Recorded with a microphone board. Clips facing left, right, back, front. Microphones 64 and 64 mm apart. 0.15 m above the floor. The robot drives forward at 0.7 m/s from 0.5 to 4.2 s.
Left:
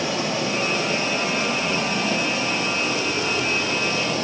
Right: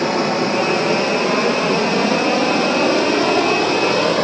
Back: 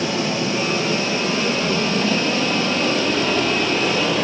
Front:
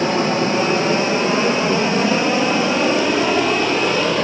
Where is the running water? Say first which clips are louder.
Right 7 dB, front 4 dB; 55° right, 4.5 m; by 4.3 s 90° right, 4 m.